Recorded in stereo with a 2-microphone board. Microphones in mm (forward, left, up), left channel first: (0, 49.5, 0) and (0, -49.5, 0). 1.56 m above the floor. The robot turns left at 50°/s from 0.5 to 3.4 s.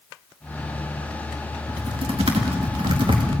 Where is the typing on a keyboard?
50° right (ahead or behind), 2.5 m.